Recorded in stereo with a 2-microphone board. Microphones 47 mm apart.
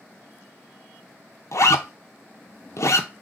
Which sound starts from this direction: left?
A zipper, at 1.5 s.